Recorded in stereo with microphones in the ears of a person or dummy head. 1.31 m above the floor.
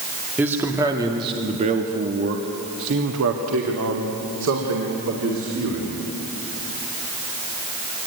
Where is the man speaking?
Centre (ahead or behind), 2.5 m; by 6.0 s 75° right (ahead or behind), 4 m.